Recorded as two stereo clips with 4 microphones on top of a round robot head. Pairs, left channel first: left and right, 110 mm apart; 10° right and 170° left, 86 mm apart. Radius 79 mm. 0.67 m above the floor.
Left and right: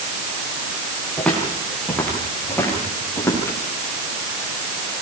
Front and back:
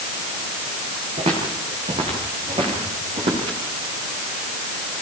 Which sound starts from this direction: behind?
Footsteps, at 1.2 s.